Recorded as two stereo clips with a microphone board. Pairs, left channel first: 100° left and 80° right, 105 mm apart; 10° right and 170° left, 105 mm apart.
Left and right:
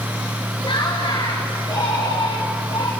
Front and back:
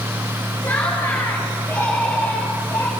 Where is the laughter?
60° left, 5 m; by 2.9 s 50° left, 3.5 m.